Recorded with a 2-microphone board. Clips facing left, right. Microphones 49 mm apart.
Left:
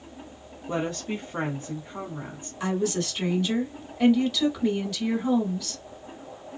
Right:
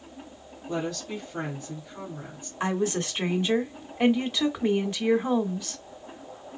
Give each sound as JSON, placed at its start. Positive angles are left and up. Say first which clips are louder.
{"t": 0.7, "sound": "a woman speaking", "louder": "left 2 dB", "side_deg": 35, "distance_m": 1.4}
{"t": 2.6, "sound": "a woman speaking", "louder": "even", "side_deg": -30, "distance_m": 1.3}